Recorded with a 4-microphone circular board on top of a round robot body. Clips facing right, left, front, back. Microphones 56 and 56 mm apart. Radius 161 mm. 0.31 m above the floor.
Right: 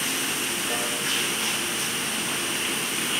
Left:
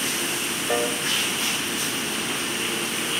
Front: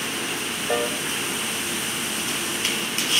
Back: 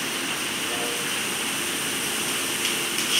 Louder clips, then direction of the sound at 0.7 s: Left 8 dB, front 9 dB; 30° left.